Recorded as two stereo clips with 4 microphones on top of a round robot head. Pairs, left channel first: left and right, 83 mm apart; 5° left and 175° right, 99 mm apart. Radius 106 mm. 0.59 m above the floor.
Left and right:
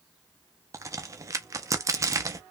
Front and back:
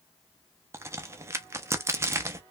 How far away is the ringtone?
No ringtone in this recording.